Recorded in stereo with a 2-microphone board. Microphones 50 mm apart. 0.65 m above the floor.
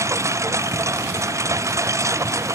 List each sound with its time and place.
0.0 s a lawn mower: 75° right (ahead or behind); by 2.5 s 80° right